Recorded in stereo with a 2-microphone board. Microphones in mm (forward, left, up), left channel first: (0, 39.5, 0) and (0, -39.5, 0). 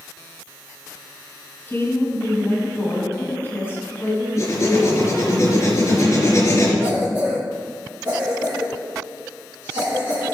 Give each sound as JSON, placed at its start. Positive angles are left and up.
{"t": 1.7, "sound": "a woman speaking", "side_deg": 25, "distance_m": 4.0}
{"t": 4.4, "sound": "writing", "side_deg": 35, "distance_m": 3.5}
{"t": 6.8, "sound": "a cough", "side_deg": -30, "distance_m": 4.5}